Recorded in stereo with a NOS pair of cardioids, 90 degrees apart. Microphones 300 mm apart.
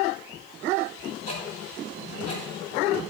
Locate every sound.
1.3 s ticking: 50° left, 7 m